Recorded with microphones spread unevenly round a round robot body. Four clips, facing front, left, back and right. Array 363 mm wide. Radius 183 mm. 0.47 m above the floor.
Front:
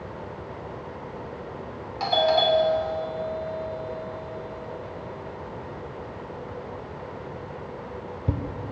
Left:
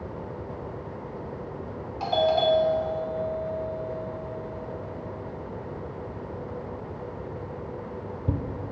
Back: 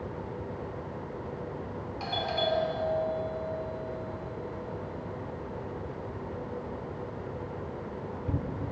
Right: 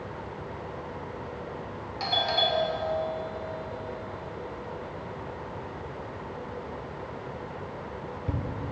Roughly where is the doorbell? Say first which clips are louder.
Left 6 dB, front 10 dB; ahead left.